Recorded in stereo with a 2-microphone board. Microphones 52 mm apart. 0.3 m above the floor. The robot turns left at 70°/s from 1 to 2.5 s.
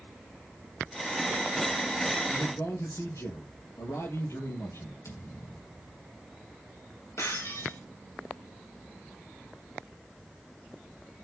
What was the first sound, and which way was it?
A man speaking, 60° left (ahead or behind).